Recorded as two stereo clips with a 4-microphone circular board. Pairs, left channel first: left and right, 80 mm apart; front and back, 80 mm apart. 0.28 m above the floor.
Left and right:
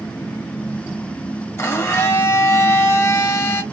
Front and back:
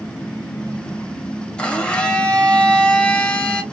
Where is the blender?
70° left, 0.8 m.